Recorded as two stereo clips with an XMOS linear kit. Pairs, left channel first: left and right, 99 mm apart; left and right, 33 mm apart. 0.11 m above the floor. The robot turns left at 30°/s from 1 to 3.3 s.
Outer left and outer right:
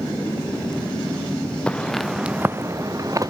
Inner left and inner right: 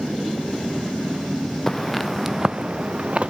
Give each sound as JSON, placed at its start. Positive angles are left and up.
{"t": 1.7, "sound": "footsteps", "side_deg": 10, "distance_m": 0.8}